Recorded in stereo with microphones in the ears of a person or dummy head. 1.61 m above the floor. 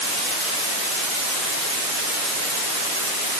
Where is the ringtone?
I don't hear a ringtone.